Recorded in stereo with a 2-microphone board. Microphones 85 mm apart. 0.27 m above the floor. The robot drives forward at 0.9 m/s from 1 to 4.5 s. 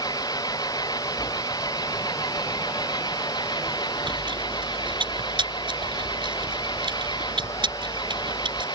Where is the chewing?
70° right (ahead or behind); by 8.7 s 75° right (ahead or behind).